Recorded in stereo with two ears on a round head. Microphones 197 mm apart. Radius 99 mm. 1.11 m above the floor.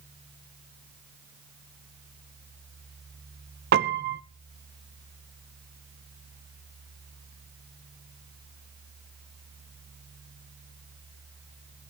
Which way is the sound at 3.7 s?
45° right (ahead or behind).